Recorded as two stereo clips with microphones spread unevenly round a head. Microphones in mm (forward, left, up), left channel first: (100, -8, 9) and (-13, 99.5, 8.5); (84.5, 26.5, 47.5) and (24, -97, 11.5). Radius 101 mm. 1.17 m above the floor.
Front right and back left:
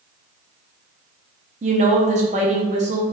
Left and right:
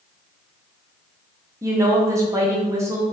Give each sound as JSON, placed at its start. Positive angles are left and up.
{"t": 1.6, "sound": "a woman speaking", "azimuth_deg": -175, "distance_m": 0.5}